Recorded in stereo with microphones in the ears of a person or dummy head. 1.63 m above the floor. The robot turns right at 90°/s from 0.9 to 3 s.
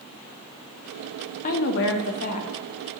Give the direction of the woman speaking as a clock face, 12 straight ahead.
10 o'clock.